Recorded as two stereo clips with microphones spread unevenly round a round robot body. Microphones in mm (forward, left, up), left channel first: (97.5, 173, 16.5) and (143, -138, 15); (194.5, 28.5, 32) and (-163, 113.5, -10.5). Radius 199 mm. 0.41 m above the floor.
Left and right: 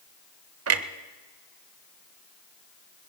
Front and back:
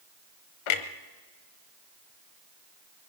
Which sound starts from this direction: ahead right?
A clunk, at 0.7 s.